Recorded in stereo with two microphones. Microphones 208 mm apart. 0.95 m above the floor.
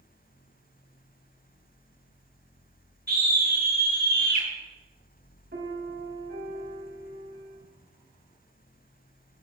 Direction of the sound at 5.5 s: 60° right (ahead or behind).